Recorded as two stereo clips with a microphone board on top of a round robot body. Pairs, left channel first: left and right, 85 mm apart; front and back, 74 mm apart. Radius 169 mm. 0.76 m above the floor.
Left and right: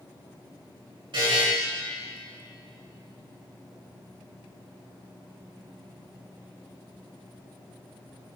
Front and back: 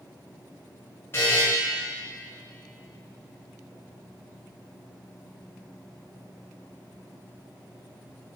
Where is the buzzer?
60° right, 5 m.